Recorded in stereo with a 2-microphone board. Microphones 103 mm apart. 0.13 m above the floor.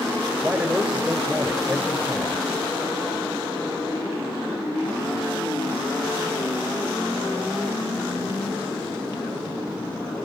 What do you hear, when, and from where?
0.4 s a man speaking: 10° right (ahead or behind), 6.5 m